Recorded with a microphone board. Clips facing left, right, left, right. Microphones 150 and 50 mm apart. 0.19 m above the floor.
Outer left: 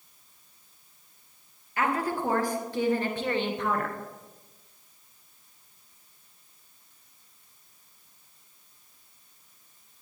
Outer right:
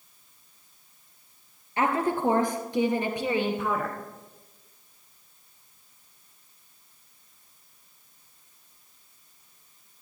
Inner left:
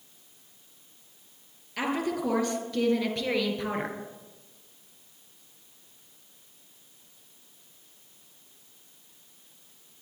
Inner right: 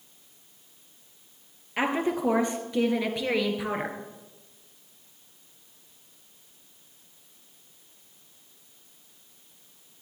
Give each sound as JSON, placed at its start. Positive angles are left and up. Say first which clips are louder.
{"t": 1.8, "sound": "a woman speaking", "louder": "outer right 3 dB, inner right 3 dB", "side_deg": -30, "distance_m": 3.5}